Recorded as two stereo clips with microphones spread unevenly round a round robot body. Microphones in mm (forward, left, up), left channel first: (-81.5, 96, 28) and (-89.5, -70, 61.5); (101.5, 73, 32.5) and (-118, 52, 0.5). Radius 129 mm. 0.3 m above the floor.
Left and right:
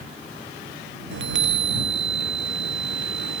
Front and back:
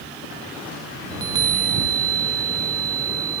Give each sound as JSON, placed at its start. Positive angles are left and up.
{"t": 1.1, "sound": "a chime", "azimuth_deg": -95}